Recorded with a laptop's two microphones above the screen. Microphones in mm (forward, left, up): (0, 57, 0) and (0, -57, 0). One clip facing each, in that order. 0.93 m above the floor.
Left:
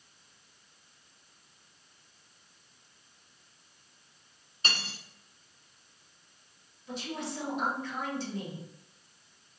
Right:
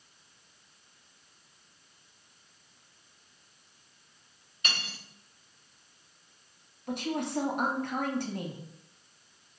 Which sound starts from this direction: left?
Cutlery clinking, at 4.6 s.